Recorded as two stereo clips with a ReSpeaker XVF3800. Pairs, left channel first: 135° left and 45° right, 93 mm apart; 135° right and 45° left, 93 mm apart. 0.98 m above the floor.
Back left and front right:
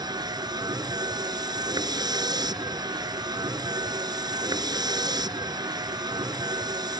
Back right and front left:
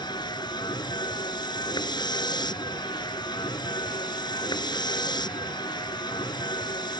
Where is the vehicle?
90° right.